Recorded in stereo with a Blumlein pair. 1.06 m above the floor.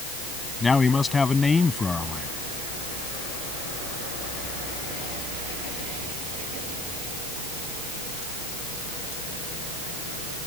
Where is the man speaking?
15° left.